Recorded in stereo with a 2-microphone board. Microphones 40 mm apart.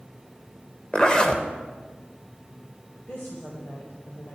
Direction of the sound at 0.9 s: 25° left (ahead or behind).